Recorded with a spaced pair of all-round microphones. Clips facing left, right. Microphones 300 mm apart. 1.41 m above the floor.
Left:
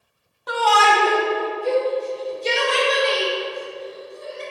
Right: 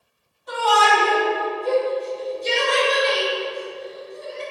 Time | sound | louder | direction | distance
0.5 | a shout | even | 75° left (ahead or behind) | 1.4 m